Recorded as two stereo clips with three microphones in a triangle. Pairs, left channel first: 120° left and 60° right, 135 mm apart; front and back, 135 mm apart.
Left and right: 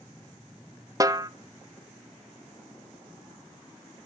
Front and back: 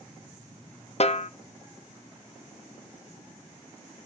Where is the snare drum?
Straight ahead, 0.6 m.